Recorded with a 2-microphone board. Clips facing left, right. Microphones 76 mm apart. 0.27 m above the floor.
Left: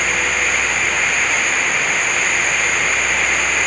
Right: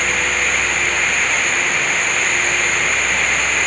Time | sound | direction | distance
0.0 | running water | centre (ahead or behind) | ?